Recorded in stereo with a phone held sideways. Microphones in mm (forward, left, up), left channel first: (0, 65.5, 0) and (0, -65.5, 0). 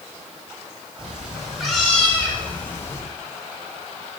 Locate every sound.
1.0 s a cat meowing: 10° right (ahead or behind), 2.5 m; by 3.0 s 20° left (ahead or behind), 1.7 m